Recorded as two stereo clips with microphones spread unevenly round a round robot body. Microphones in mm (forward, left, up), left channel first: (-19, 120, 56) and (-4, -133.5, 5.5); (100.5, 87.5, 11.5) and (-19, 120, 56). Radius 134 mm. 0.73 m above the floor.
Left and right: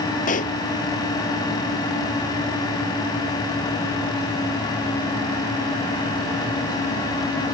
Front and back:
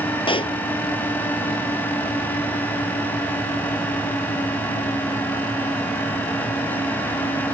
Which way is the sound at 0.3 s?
30° left.